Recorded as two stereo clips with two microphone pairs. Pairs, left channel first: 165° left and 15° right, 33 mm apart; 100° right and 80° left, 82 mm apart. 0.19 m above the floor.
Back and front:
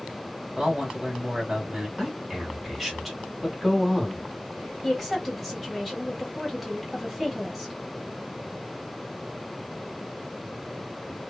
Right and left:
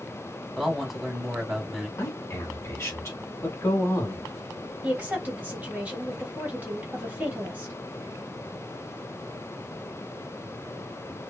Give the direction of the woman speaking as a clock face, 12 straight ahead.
10 o'clock.